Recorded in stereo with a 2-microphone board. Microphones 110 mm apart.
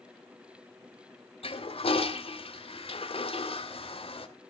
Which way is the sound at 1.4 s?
60° left (ahead or behind).